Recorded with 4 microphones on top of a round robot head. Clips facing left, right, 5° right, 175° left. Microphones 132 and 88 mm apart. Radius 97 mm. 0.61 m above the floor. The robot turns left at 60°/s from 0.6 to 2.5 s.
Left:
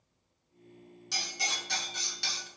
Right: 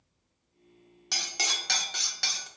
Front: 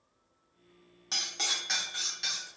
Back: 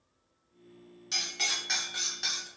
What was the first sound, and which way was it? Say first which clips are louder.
Cutlery clinking: right 1 dB, back 1 dB; 55° right.